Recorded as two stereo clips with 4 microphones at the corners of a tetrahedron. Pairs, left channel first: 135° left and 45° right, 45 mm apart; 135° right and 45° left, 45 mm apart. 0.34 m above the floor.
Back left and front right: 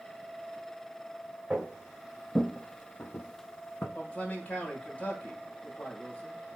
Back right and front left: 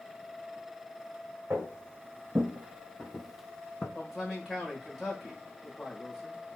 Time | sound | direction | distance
1.5 | footsteps | 25° left | 1.1 m
4.0 | a man speaking | 125° left | 1.2 m